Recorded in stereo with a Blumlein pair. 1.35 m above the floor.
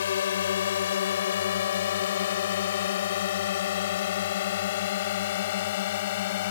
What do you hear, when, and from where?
0.0 s a drone: 65° left; by 6.5 s 55° left